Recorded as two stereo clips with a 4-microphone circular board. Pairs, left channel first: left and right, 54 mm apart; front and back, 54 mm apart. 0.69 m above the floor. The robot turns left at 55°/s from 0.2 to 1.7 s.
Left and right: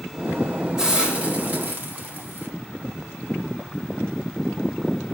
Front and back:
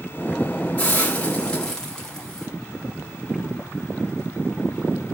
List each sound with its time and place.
0.8 s a hiss: 20° right, 1.2 m; by 2.5 s 70° right, 1.2 m